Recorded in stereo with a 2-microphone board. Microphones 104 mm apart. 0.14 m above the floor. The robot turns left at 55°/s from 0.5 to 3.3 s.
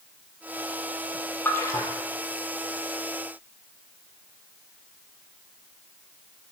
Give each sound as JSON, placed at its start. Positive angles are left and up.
{"t": 1.4, "sound": "a splash", "side_deg": 20, "distance_m": 0.7}